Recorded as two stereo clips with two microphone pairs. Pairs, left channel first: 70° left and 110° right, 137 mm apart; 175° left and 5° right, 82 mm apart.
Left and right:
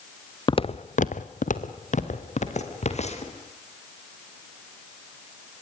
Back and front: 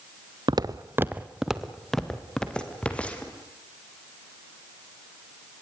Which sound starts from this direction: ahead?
Footsteps, at 0.5 s.